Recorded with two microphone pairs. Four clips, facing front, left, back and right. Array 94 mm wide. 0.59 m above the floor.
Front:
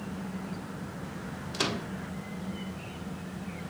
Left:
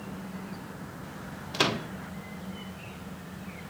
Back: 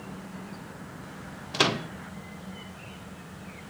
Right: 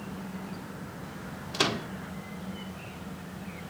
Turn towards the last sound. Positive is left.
turn(degrees=165)